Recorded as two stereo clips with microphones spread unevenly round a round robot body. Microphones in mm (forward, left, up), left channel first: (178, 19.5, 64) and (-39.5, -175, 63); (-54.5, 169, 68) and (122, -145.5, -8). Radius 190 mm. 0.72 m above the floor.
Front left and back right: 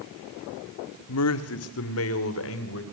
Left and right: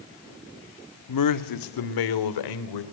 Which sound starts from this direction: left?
A man speaking, at 1.1 s.